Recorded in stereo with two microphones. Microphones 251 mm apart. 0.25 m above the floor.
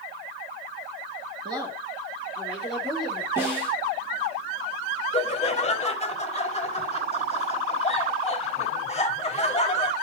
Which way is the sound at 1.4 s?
20° right (ahead or behind).